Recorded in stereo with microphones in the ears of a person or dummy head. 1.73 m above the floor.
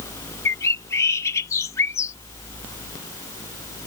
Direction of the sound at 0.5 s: 15° left (ahead or behind).